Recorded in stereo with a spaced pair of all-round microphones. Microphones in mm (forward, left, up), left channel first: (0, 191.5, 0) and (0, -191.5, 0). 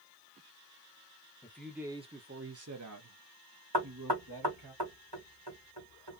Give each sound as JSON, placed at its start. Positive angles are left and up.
{"t": 1.4, "sound": "a man speaking", "side_deg": 5, "distance_m": 0.8}
{"t": 3.7, "sound": "knocking", "side_deg": -85, "distance_m": 1.8}